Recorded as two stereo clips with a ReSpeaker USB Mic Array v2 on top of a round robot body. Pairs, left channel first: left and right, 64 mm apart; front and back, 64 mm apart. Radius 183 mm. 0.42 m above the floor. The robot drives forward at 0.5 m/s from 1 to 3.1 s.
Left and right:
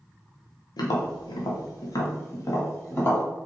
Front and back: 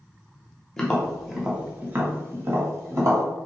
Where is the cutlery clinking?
I don't hear cutlery clinking.